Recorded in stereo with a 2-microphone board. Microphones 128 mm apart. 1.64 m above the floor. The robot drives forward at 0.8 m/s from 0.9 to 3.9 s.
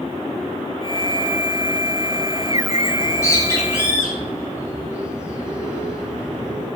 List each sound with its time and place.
3.0 s a bird: 25° left (ahead or behind), 8.5 m; by 6.7 s 20° left (ahead or behind), 9.5 m